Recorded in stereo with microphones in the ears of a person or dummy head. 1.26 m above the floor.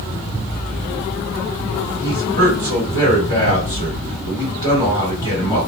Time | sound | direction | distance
2.0 | a man speaking | 20° left (ahead or behind) | 2 m